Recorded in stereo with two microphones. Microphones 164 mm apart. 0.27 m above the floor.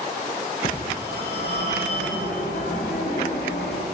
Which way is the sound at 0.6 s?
85° left.